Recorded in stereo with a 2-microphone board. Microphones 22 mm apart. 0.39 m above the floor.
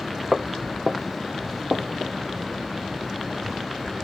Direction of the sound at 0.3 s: 35° right (ahead or behind).